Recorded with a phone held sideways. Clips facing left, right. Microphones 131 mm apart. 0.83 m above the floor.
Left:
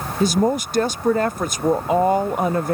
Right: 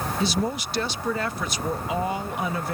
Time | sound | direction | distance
0.2 | a woman speaking | 45° left (ahead or behind) | ?